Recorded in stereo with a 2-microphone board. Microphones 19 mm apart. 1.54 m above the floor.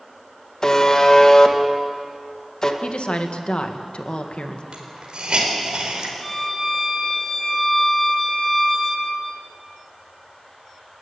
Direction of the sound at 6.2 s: Centre (ahead or behind).